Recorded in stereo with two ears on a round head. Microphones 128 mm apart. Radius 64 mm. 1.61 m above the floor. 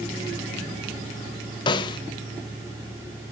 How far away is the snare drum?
About 0.8 m.